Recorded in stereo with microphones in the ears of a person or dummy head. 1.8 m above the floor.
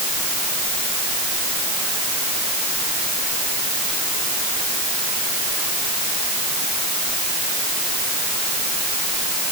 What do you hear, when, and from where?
Only background noise.